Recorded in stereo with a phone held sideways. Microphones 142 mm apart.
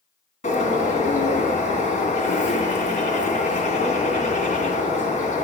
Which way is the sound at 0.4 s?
60° left (ahead or behind).